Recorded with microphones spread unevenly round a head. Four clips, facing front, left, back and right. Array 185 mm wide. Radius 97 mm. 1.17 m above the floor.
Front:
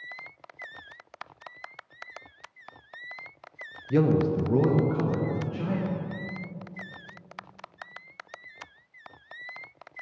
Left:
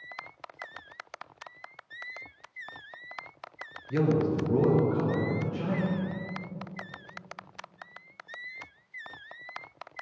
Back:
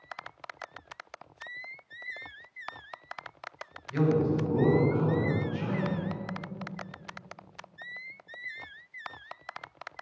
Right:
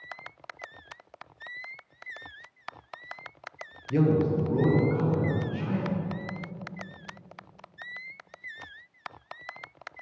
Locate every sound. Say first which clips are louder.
3.9 s a man speaking: right 2 dB, front 3 dB; 20° right, 0.8 m; by 5.9 s 45° left, 2 m